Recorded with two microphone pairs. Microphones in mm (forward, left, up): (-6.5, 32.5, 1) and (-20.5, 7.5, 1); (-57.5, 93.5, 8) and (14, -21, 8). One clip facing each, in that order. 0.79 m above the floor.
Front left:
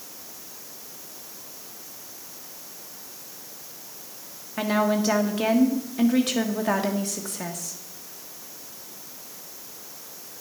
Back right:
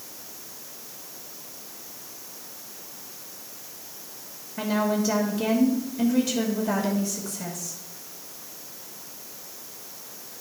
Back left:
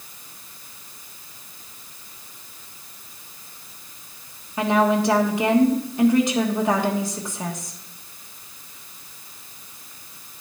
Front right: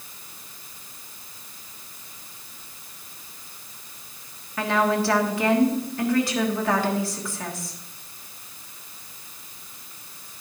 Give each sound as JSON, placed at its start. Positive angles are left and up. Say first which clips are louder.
{"t": 4.6, "sound": "a woman speaking", "louder": "front left 2 dB, back left 3 dB", "azimuth_deg": 55, "distance_m": 1.4}